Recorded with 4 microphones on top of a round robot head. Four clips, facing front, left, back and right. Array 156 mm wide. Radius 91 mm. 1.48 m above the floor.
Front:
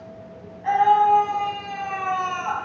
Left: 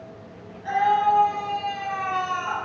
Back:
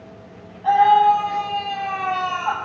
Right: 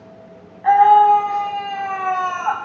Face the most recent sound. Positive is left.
turn(degrees=-110)